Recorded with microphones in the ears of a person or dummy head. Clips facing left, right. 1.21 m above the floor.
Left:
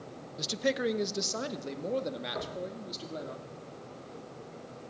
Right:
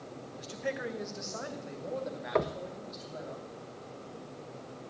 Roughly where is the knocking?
Right.